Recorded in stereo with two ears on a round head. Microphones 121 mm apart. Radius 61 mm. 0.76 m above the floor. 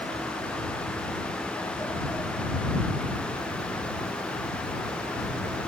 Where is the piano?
No piano in this recording.